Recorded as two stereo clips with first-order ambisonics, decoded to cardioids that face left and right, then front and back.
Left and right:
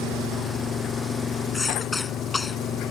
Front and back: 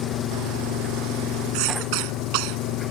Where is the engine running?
35° left.